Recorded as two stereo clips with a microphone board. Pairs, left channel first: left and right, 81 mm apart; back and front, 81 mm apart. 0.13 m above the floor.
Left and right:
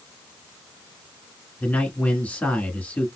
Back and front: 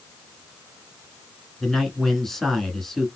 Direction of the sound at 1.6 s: 100° left.